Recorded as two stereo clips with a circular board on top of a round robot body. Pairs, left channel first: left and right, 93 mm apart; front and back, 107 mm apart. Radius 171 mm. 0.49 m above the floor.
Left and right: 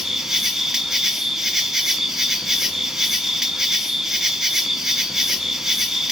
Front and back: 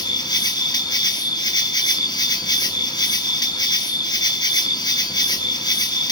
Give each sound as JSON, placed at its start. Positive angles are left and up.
{"t": 0.0, "sound": "an insect", "azimuth_deg": -5, "distance_m": 1.0}